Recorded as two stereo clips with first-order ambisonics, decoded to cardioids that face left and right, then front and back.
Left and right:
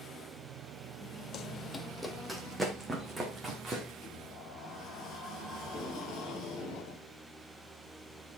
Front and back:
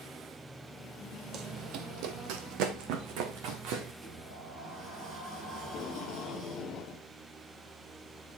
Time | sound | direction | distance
1.3 | running footsteps | 135° left | 0.6 m
4.0 | a sliding door | 135° left | 6.5 m
5.6 | tape being pulled | 50° left | 1.2 m